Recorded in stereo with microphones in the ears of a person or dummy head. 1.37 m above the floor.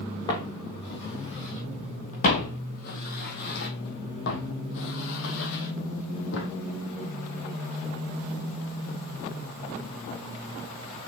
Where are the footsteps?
20° left (ahead or behind), 3.5 m; by 6.5 s 65° left (ahead or behind), 3.5 m.